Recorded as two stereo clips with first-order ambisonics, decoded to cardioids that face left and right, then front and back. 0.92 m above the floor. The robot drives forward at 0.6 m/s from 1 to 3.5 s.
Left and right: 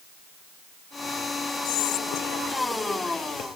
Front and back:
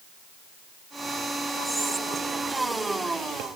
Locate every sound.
1.6 s whispering: 85° left, 0.8 m; by 3.5 s 145° left, 1.3 m